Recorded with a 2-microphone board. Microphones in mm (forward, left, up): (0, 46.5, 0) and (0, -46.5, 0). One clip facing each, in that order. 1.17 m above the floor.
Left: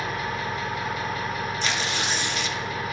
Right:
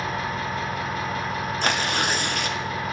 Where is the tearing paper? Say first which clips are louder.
Right 3 dB; 55° right (ahead or behind), 0.7 m.